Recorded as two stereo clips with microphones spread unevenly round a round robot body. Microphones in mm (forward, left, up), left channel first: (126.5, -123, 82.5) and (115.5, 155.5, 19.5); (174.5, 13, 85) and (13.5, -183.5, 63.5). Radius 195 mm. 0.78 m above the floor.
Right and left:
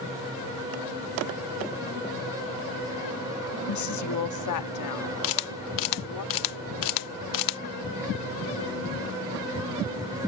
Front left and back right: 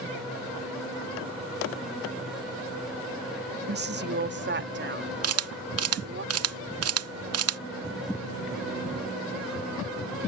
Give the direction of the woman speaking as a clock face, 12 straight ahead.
3 o'clock.